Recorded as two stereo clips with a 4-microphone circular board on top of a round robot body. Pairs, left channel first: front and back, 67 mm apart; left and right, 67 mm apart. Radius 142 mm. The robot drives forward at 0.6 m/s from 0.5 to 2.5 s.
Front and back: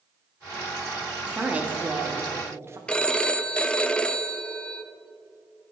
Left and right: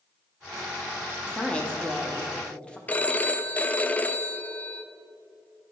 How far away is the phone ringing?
About 0.6 m.